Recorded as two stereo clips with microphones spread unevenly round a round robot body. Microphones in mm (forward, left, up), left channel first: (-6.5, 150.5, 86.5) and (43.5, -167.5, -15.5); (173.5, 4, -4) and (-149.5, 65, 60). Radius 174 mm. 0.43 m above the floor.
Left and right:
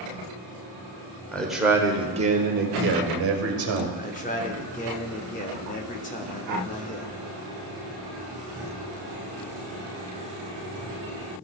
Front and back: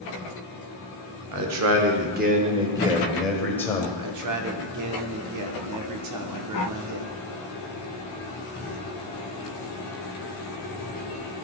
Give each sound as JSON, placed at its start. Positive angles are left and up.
{"t": 1.3, "sound": "a man speaking", "azimuth_deg": -160, "distance_m": 1.1}
{"t": 4.0, "sound": "a man speaking", "azimuth_deg": 175, "distance_m": 1.0}